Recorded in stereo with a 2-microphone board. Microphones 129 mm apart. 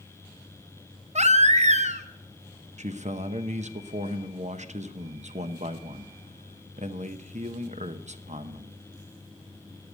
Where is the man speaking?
65° right (ahead or behind), 0.9 m.